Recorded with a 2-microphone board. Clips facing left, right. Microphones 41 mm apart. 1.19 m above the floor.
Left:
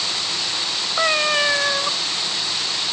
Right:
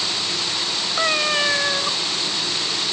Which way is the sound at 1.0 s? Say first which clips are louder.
Left 2 dB; 10° left (ahead or behind).